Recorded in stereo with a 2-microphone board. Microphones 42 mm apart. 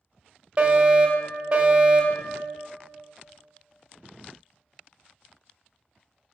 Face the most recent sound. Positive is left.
turn(degrees=-25)  # may be behind; listen again after turning